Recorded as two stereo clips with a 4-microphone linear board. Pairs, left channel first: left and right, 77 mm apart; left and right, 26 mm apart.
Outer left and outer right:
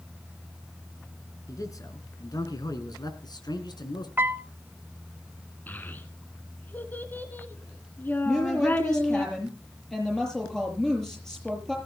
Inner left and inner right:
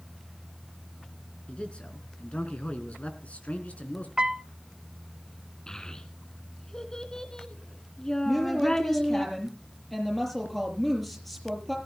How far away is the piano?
About 0.8 m.